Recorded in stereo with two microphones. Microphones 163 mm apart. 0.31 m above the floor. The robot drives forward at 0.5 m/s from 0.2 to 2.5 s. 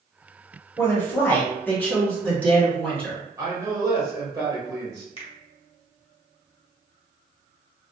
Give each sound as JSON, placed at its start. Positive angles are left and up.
{"t": 0.8, "sound": "a woman speaking", "side_deg": 15, "distance_m": 1.0}
{"t": 3.4, "sound": "a man speaking", "side_deg": -20, "distance_m": 0.9}
{"t": 5.2, "sound": "a finger snap", "side_deg": 35, "distance_m": 0.9}